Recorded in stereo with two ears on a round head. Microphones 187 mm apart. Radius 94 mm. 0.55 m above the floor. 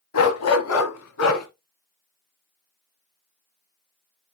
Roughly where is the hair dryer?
No hair dryer in this recording.